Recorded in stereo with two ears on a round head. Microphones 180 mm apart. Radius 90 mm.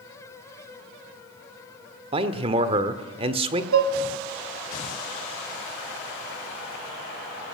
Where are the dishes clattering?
75° right (ahead or behind), 1.7 m.